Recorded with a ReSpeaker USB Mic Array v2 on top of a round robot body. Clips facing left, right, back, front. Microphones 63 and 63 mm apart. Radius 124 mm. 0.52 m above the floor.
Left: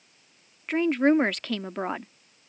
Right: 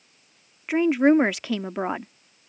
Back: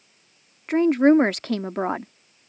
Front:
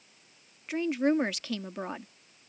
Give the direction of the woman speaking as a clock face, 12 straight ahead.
6 o'clock.